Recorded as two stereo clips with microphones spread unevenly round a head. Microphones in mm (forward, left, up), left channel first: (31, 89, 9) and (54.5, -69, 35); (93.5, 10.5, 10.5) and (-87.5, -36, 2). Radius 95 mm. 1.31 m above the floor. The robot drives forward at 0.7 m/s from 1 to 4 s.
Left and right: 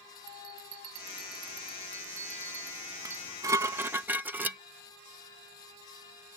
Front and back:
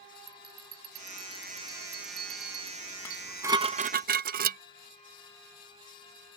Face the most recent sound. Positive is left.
turn(degrees=-150)